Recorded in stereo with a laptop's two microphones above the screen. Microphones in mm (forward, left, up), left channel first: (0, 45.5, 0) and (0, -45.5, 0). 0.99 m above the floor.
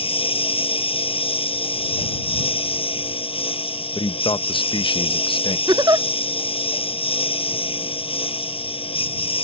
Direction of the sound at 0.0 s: 85° left.